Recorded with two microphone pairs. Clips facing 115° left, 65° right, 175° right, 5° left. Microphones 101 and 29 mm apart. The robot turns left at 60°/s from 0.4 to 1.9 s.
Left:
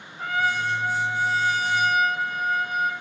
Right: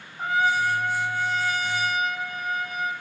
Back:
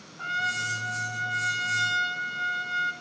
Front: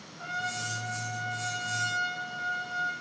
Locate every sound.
0.2 s a trumpet: 130° right, 1.2 m; by 2.9 s 140° left, 1.2 m